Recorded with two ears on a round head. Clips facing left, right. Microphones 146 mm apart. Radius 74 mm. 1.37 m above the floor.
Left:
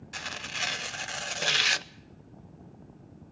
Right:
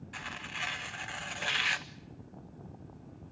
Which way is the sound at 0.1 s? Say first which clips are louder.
Left 5 dB; 45° left (ahead or behind).